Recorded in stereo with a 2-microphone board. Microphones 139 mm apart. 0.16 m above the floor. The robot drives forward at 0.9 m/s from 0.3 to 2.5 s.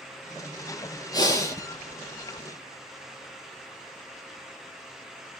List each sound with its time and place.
1.1 s breathing: 25° left (ahead or behind), 1.1 m; by 1.6 s 20° left (ahead or behind), 1.5 m